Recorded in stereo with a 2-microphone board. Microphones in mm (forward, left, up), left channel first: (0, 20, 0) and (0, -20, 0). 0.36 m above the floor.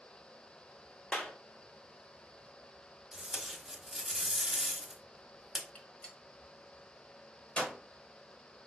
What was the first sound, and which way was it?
A clap, 25° left (ahead or behind).